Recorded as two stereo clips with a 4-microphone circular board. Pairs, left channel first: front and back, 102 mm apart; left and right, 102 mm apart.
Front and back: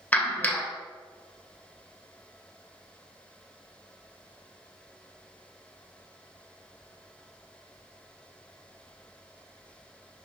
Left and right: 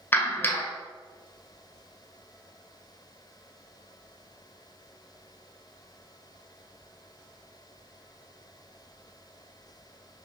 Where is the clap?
50° left, 1.1 m.